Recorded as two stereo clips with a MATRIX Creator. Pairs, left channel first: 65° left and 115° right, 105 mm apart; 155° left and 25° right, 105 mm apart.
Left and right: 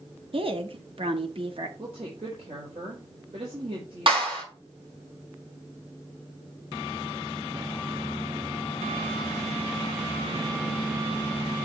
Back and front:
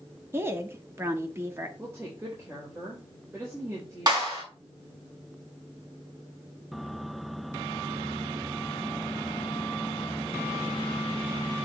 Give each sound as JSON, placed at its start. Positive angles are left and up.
{"t": 0.3, "sound": "a woman speaking", "azimuth_deg": -90, "distance_m": 1.2}
{"t": 1.8, "sound": "a woman speaking", "azimuth_deg": -85, "distance_m": 4.0}
{"t": 4.1, "sound": "a clap", "azimuth_deg": -75, "distance_m": 5.5}